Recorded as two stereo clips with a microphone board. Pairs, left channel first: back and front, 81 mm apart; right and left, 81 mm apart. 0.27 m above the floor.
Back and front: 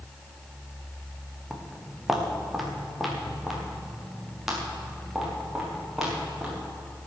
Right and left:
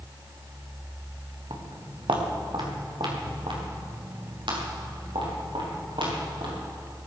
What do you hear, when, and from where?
1.5 s footsteps: 90° left, 3 m; by 6.5 s 85° left, 8 m